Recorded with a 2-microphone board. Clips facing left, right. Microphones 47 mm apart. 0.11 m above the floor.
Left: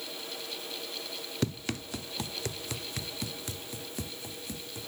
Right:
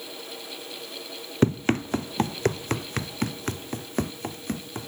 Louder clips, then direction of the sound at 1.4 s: Right 12 dB; 40° right (ahead or behind).